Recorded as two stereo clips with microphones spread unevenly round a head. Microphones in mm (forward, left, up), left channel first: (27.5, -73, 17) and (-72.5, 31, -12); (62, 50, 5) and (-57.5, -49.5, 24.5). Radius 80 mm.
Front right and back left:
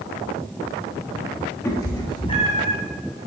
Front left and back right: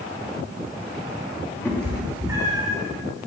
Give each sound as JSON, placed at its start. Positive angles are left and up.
{"t": 1.6, "sound": "a cat meowing", "azimuth_deg": -35, "distance_m": 1.2}